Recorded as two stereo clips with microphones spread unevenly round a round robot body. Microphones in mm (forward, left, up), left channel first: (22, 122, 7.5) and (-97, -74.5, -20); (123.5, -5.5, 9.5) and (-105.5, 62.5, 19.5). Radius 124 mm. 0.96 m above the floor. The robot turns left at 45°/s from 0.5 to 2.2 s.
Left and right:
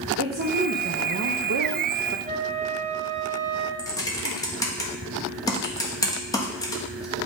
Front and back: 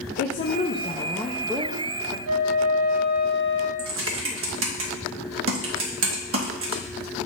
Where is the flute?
Straight behind, 1.1 m.